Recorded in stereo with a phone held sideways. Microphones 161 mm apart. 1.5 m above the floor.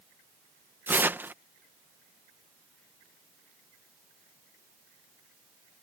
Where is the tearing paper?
10° right (ahead or behind).